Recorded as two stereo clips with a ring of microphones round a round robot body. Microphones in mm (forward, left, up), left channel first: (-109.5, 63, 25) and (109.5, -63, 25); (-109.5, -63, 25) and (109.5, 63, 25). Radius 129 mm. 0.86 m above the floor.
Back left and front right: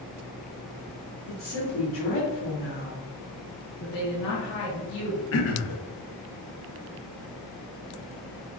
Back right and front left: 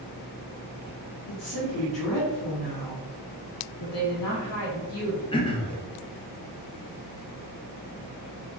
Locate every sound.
1.3 s a woman speaking: 165° left, 1.9 m
3.8 s a woman speaking: 170° right, 1.0 m
5.3 s throat clearing: 145° left, 0.6 m